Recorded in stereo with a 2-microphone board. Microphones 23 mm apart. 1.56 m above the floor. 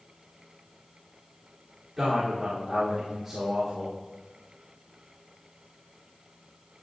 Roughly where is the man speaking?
Centre.